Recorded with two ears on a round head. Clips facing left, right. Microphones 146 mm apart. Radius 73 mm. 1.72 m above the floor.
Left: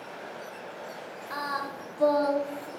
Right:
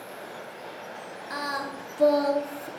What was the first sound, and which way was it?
Singing, 25° right (ahead or behind).